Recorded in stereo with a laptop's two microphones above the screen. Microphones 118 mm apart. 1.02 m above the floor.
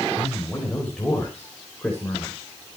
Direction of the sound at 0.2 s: 10° left (ahead or behind).